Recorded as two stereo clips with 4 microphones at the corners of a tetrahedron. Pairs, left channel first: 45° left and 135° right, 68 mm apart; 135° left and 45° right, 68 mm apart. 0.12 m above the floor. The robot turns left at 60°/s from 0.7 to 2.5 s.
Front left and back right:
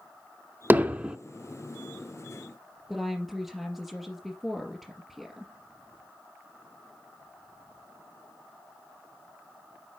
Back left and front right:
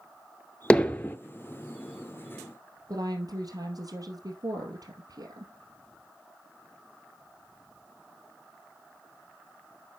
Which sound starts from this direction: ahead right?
A woman speaking, at 2.9 s.